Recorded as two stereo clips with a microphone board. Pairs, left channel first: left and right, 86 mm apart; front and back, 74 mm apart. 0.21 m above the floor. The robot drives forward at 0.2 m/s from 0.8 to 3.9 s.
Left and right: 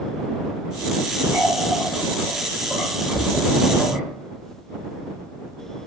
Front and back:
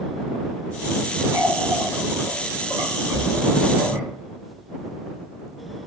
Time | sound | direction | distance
1.3 | a running tap | 140° right | 1.4 m